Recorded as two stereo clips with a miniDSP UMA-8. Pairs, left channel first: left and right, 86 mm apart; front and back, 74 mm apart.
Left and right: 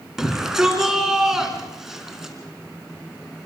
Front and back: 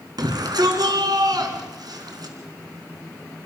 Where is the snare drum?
I don't hear a snare drum.